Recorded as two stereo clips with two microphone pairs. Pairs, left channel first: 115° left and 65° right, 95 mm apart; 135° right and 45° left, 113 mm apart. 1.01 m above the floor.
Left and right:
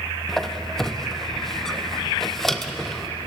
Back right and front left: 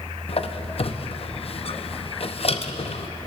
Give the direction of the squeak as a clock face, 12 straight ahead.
5 o'clock.